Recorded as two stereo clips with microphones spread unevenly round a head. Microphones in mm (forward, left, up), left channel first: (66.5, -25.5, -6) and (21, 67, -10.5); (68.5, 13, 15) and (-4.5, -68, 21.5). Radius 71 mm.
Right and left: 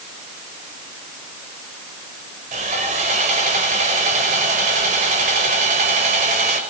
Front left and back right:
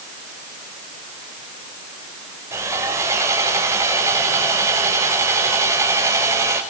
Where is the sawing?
155° left, 5.5 m.